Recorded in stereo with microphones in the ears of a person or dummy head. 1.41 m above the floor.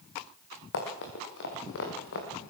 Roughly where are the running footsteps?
Left.